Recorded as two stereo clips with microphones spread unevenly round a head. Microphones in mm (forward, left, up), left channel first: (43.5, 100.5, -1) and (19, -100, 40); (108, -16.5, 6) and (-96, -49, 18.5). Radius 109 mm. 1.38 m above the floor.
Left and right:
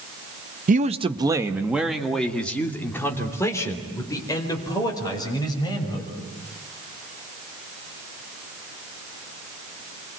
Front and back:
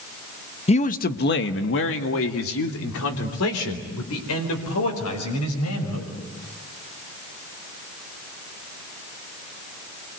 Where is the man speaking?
50° right, 1.2 m; by 6.1 s 15° left, 6.5 m.